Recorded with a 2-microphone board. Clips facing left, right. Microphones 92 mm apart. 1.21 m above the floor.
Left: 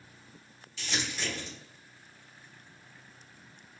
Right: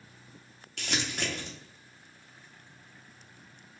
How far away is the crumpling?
About 0.9 m.